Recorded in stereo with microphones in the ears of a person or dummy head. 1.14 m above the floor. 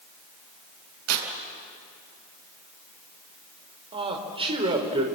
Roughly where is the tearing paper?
Right.